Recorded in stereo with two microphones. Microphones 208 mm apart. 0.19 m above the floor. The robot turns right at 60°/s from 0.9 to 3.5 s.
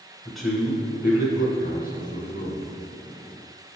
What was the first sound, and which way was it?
A man speaking, straight behind.